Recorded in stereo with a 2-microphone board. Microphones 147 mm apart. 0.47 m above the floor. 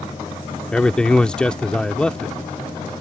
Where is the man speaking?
5° left (ahead or behind).